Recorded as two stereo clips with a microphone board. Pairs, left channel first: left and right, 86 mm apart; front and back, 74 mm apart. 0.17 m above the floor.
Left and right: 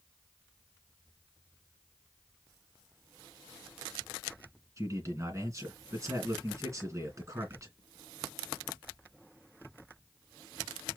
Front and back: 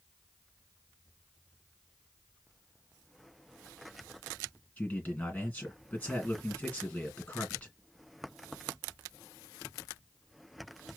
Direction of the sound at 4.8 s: 60° right.